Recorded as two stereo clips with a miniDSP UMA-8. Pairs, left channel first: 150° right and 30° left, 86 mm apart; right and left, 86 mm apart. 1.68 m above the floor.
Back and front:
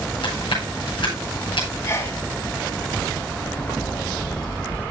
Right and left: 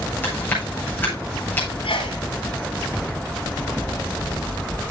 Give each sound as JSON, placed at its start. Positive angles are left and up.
{"t": 0.2, "sound": "chewing", "azimuth_deg": -155, "distance_m": 8.5}
{"t": 1.8, "sound": "a sneeze", "azimuth_deg": -110, "distance_m": 3.5}